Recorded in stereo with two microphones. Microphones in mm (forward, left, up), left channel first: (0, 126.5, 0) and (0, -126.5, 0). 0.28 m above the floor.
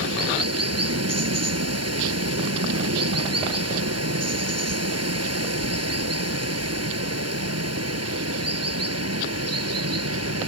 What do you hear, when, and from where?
0.0 s running water: 80° right